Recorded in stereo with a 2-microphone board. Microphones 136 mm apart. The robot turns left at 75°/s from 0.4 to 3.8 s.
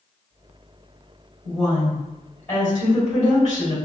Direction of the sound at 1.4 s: 125° right.